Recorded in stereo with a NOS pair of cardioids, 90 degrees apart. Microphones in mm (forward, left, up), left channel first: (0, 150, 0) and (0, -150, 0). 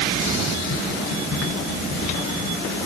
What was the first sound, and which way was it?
Only background noise.